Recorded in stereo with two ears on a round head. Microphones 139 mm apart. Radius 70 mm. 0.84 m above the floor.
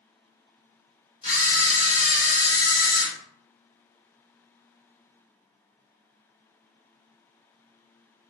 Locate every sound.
1.2 s a camera shutter: 35° left (ahead or behind), 2.0 m